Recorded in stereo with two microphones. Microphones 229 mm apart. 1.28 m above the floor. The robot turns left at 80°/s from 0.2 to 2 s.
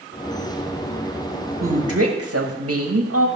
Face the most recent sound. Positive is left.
turn(degrees=-90)